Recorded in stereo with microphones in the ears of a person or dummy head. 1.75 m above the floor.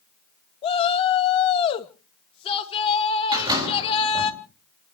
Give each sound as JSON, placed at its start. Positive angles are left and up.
{"t": 0.6, "sound": "a shout", "side_deg": 30, "distance_m": 1.9}
{"t": 3.3, "sound": "a door slam", "side_deg": -20, "distance_m": 4.0}